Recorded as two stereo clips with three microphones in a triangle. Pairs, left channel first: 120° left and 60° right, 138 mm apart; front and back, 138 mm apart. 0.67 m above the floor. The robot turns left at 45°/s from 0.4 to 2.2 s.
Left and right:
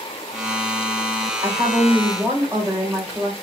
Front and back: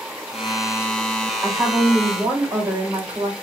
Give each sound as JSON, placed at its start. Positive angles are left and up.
{"t": 1.4, "sound": "a woman speaking", "azimuth_deg": -85, "distance_m": 1.7}